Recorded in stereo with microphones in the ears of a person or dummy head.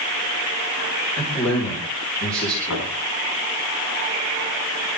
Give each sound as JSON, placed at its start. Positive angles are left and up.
{"t": 1.2, "sound": "a man speaking", "side_deg": 35, "distance_m": 5.5}
{"t": 2.7, "sound": "knocking", "side_deg": 75, "distance_m": 9.5}